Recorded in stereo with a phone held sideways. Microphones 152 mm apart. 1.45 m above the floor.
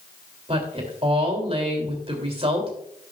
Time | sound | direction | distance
0.5 | a woman speaking | 40° right (ahead or behind) | 3 m